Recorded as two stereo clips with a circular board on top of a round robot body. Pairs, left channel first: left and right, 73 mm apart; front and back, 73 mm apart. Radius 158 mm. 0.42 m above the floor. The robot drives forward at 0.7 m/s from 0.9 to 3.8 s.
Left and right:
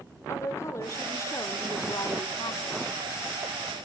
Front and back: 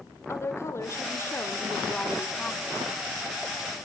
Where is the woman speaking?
45° left, 2 m; by 2.8 s 95° left, 1.8 m.